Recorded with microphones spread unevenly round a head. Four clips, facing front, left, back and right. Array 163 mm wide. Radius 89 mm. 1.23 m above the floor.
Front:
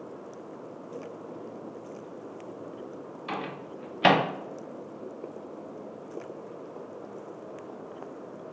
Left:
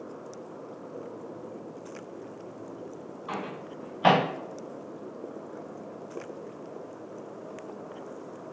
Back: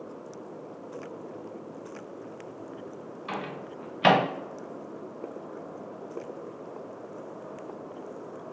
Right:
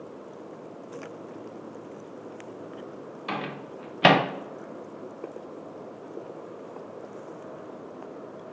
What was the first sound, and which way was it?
A microwave, 90° right.